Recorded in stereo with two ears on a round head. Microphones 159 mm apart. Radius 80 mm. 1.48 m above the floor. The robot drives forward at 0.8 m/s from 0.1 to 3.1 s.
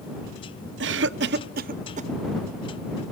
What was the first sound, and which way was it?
A cough, 75° right (ahead or behind).